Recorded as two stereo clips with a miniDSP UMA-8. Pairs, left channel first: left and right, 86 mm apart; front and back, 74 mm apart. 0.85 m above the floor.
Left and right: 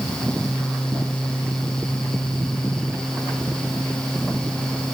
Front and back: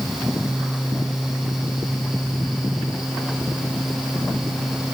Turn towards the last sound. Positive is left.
No sound to turn to.